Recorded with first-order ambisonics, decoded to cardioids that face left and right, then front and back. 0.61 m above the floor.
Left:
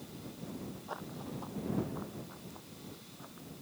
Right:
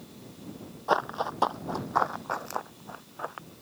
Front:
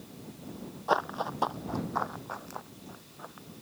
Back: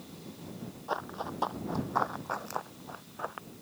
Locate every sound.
0.9 s running footsteps: 60° right; by 3.5 s 125° right